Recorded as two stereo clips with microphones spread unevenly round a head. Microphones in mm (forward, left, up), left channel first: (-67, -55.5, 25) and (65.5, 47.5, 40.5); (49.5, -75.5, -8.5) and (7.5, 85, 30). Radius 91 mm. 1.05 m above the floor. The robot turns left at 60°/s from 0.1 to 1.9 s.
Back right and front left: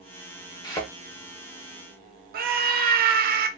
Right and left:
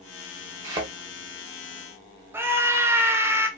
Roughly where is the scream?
Ahead.